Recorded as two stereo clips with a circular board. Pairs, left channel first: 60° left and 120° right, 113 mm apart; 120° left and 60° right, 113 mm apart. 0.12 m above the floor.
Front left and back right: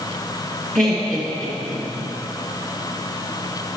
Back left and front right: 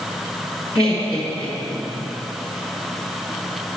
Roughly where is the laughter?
Behind.